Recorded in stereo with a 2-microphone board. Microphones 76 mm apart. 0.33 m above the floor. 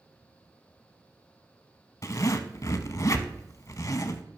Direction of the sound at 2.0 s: 45° left (ahead or behind).